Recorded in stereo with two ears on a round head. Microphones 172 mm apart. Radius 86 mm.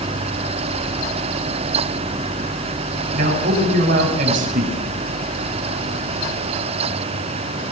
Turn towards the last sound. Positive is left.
turn(degrees=-45)  # may be behind; listen again after turning